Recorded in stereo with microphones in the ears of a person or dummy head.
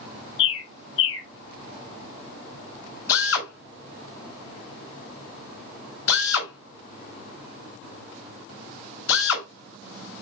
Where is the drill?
80° left, 4.5 m.